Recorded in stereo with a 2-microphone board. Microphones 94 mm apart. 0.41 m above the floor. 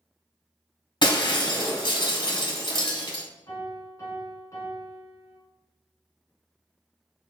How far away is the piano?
About 1.7 m.